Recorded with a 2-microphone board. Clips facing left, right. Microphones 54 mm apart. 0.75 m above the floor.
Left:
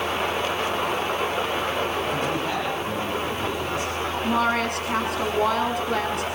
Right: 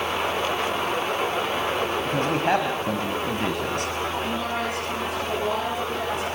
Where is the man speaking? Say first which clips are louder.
Right 3 dB; 45° right (ahead or behind), 4 m; by 3.9 s 65° right (ahead or behind), 5 m.